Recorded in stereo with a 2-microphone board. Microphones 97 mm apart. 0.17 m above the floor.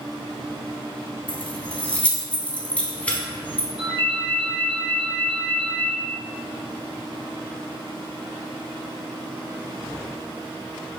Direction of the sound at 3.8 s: 60° right (ahead or behind).